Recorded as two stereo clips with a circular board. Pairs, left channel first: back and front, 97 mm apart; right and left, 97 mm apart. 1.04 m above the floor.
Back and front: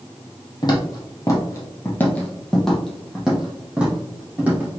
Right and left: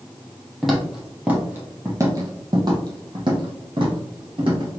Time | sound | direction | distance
0.6 | footsteps | straight behind | 1.3 m